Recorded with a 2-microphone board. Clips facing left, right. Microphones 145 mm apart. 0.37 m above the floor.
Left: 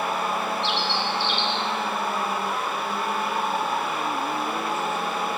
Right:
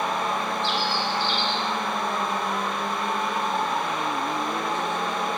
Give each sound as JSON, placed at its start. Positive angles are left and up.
{"t": 0.6, "sound": "a bird", "side_deg": 75, "distance_m": 0.8}